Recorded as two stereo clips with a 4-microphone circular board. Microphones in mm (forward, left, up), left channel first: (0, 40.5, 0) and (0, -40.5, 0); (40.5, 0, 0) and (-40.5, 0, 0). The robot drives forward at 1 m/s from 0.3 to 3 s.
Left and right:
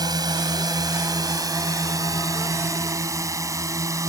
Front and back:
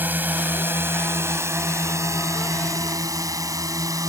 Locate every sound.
0.0 s a drone: 115° right; by 4.1 s 135° right